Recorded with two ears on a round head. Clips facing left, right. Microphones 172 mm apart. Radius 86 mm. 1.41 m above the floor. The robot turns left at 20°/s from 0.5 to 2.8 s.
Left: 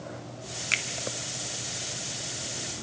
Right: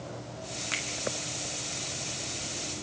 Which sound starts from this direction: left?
A finger snap, at 0.7 s.